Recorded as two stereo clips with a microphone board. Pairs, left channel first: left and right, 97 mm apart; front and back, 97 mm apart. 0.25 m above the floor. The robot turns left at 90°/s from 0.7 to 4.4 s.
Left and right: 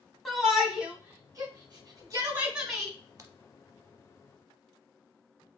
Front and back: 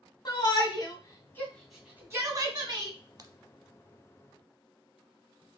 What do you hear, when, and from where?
0.2 s a shout: straight ahead, 1.8 m; by 2.9 s 160° left, 1.8 m
3.2 s a crack: 135° right, 0.7 m; by 3.3 s 150° right, 0.7 m